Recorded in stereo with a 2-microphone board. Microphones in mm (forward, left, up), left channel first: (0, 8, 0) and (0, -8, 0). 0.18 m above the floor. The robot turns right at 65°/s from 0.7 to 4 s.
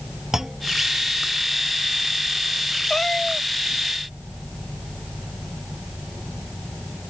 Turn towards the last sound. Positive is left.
turn(degrees=-135)